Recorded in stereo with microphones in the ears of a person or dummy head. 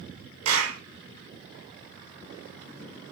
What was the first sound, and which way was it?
A clap, 85° right.